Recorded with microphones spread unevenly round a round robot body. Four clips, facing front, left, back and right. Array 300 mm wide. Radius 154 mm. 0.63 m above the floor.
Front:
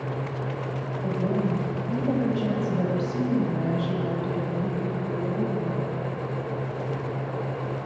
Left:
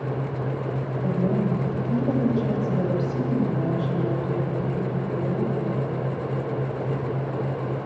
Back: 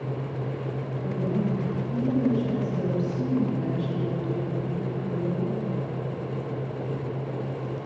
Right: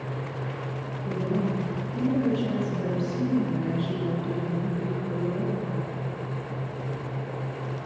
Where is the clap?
No clap in this recording.